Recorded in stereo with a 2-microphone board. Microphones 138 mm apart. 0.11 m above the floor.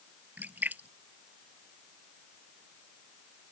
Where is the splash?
10° right (ahead or behind).